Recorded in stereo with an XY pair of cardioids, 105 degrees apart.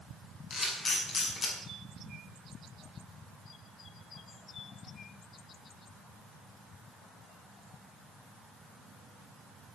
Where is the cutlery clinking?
No cutlery clinking in this recording.